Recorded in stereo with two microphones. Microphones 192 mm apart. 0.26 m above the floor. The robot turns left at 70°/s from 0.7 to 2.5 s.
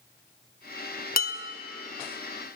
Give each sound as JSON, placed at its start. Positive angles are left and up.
{"t": 1.2, "sound": "dishes clattering", "side_deg": 50, "distance_m": 1.1}